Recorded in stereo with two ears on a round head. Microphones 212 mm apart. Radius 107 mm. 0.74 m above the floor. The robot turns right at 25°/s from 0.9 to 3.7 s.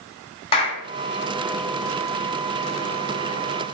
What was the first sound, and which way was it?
A clap, 25° left (ahead or behind).